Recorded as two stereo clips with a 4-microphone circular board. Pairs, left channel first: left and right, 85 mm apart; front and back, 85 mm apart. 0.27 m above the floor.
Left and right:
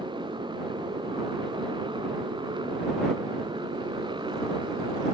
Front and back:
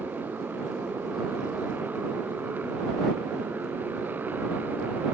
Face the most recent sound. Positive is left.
turn(degrees=-110)